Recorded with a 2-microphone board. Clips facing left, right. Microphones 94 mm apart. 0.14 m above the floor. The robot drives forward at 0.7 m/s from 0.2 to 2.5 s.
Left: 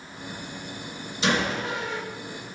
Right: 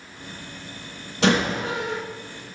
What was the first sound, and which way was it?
A door slam, 65° right (ahead or behind).